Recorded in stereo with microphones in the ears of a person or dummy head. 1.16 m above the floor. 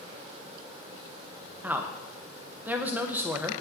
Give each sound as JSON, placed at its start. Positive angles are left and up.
{"t": 1.6, "sound": "a woman speaking", "side_deg": -20, "distance_m": 0.9}